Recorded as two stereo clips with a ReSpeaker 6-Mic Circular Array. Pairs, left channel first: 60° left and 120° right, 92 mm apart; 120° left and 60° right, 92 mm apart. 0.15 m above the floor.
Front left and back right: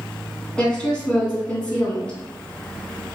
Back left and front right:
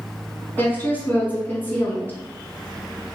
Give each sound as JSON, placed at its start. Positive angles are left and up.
{"t": 0.6, "sound": "a woman speaking", "azimuth_deg": 115, "distance_m": 1.0}